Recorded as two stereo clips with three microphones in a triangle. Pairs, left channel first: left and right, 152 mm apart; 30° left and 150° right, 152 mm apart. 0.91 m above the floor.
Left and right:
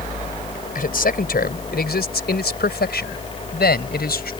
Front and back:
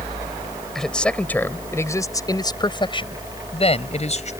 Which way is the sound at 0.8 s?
120° left.